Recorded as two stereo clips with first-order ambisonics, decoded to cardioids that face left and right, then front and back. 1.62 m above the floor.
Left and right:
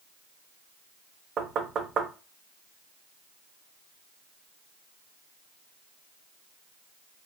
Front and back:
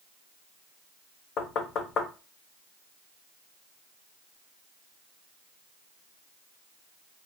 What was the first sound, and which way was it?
Knocking, 35° right.